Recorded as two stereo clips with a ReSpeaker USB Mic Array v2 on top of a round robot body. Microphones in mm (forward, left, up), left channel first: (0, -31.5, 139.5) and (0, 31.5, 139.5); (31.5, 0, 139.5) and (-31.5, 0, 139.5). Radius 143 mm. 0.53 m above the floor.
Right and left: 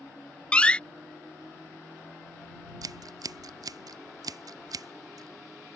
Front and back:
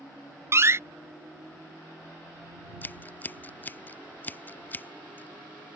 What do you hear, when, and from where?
0.5 s a door slam: 155° right
2.8 s scissors: 65° left